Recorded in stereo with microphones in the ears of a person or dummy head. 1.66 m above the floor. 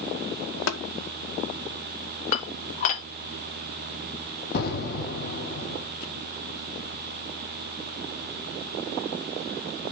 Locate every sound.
0.7 s tapping: 75° left (ahead or behind), 2 m
2.3 s dishes clattering: 35° left (ahead or behind), 2 m
4.5 s an explosion: 45° left (ahead or behind), 4.5 m